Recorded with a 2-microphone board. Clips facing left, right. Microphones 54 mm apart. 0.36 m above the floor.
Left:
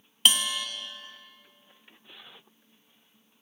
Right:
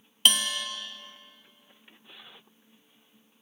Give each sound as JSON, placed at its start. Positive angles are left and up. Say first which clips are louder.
{"t": 0.2, "sound": "a bell", "louder": "even", "side_deg": 5, "distance_m": 1.3}